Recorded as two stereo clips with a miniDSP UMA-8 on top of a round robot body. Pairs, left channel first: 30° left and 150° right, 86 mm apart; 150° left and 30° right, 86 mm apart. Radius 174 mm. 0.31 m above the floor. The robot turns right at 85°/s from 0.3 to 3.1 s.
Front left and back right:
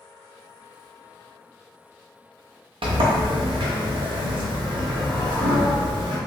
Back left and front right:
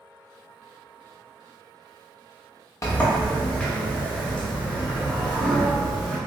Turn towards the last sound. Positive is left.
turn(degrees=-130)